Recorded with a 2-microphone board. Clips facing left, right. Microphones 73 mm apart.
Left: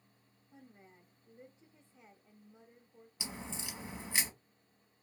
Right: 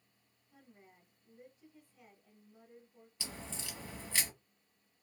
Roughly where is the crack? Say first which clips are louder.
Left 2 dB; centre.